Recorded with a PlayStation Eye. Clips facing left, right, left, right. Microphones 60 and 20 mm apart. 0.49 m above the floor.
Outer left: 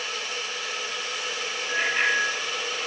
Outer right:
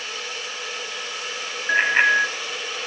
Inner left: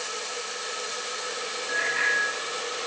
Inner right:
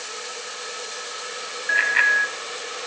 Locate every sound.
1.7 s a bicycle bell: 60° right (ahead or behind), 2.5 m